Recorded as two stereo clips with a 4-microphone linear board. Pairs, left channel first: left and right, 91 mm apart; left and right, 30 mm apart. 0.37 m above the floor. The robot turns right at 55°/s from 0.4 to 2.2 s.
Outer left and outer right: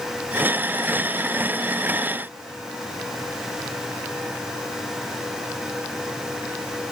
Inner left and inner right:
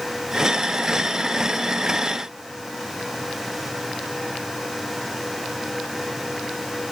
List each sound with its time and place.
Only background noise.